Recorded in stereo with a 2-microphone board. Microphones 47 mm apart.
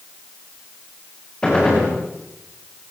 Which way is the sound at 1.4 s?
15° left (ahead or behind).